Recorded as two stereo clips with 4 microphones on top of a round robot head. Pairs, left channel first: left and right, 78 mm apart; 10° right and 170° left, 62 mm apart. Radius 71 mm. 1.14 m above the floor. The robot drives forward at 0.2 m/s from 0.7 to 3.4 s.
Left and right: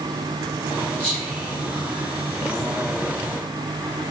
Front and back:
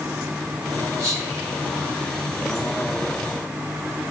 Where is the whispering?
165° left, 1.2 m.